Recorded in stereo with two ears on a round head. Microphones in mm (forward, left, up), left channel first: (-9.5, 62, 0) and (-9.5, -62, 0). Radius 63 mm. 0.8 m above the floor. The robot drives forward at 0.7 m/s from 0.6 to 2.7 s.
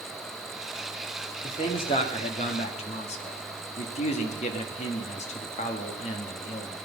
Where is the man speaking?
35° left (ahead or behind), 2 m; by 6.9 s 50° left (ahead or behind), 1.7 m.